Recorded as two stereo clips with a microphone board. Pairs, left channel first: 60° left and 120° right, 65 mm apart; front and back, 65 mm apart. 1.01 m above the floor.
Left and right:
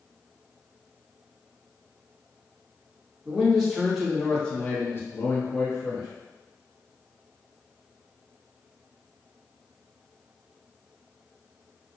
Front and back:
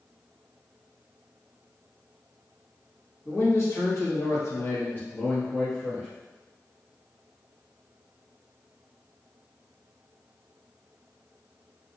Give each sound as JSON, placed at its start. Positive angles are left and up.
{"t": 3.2, "sound": "a man speaking", "azimuth_deg": -45, "distance_m": 1.7}